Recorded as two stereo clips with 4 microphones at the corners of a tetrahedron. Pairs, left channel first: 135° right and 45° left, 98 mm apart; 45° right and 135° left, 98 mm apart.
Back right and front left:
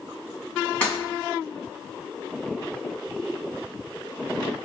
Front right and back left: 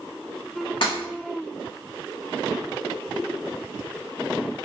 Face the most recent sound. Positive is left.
turn(degrees=-60)